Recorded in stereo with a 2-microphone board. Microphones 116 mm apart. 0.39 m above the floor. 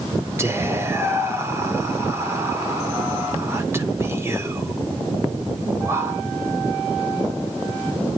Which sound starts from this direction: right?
Whispering, at 0.4 s.